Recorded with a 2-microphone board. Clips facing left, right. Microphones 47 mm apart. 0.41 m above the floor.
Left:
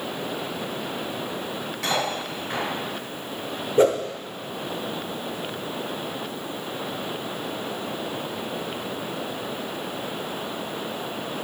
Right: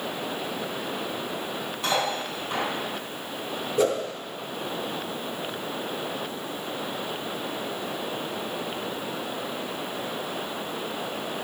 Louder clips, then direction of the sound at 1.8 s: Even; 75° left (ahead or behind).